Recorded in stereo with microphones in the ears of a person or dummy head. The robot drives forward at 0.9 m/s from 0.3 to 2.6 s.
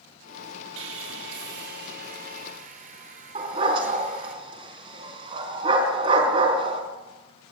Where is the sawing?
65° right (ahead or behind), 1.9 m; by 4.3 s 40° right (ahead or behind), 2.5 m.